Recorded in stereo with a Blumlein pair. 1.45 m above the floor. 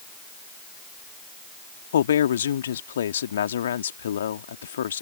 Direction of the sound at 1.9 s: 65° left.